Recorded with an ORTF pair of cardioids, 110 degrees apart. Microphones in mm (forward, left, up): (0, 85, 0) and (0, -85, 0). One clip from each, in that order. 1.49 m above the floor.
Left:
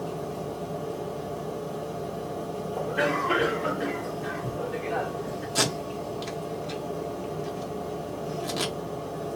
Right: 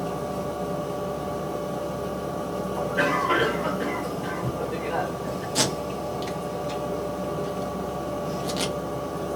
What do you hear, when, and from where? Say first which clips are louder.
0.0 s a machine running: right 4 dB; 30° right, 0.8 m
2.8 s a cough: right 2 dB; 5° right, 1.3 m
5.5 s tape being pulled: right 1 dB; straight ahead, 1.0 m